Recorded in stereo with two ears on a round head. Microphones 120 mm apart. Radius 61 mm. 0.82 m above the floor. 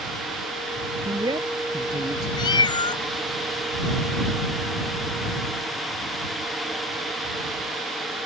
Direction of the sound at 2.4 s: 35° left (ahead or behind).